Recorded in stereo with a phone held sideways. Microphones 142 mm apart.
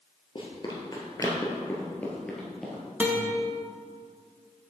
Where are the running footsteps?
40° left (ahead or behind), 1.7 m; by 2.8 s 5° right (ahead or behind), 1.7 m.